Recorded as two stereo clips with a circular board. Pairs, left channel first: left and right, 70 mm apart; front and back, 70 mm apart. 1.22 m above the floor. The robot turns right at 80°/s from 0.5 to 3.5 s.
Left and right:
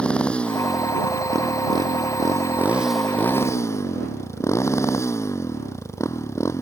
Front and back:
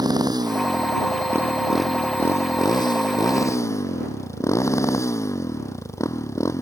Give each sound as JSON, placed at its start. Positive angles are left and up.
{"t": 0.0, "sound": "a motorcycle", "azimuth_deg": 165}